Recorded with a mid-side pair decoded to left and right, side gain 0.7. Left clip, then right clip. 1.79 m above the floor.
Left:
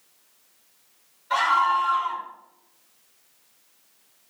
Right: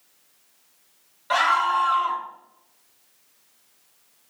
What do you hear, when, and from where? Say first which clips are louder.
1.3 s a scream: even; 65° right, 4.5 m